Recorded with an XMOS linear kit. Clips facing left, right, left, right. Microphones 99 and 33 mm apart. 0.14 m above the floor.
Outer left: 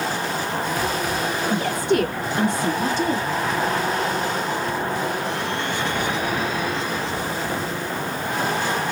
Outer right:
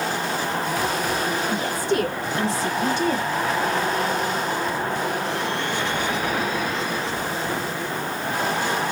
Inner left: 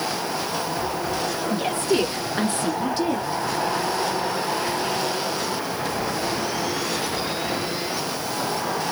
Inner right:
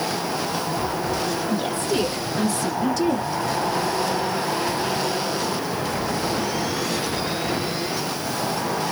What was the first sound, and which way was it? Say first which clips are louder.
A woman speaking: outer left 6 dB, inner left 1 dB; 60° left (ahead or behind).